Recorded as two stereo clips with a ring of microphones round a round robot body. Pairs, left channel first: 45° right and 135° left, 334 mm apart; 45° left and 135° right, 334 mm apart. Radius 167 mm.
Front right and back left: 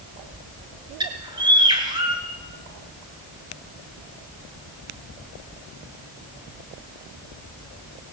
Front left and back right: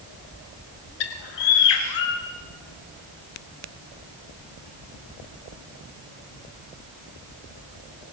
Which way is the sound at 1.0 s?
60° left.